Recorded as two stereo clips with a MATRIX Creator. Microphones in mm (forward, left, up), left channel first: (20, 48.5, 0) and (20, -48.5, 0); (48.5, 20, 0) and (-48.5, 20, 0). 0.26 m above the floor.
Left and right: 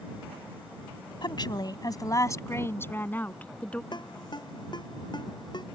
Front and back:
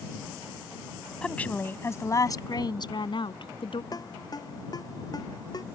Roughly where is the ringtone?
Ahead left.